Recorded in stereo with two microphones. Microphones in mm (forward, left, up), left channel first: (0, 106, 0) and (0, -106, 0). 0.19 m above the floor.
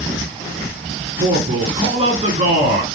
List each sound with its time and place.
1.2 s a man speaking: 30° right (ahead or behind), 2.5 m